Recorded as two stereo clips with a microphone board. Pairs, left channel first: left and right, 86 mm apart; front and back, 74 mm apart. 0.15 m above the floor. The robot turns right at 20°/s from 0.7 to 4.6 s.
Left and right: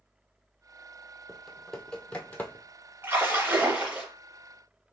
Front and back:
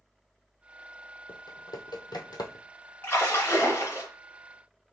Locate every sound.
1.3 s typing on a keyboard: straight ahead, 0.9 m; by 2.6 s 25° left, 0.9 m
3.0 s a splash: 45° right, 2 m; by 4.1 s 25° right, 2 m